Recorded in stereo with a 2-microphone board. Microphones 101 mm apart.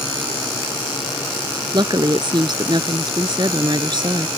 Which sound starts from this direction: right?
A woman speaking, at 1.7 s.